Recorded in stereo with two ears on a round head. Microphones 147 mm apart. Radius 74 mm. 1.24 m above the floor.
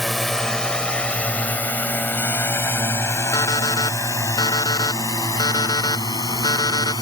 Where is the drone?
Centre (ahead or behind); by 7.0 s 25° left (ahead or behind).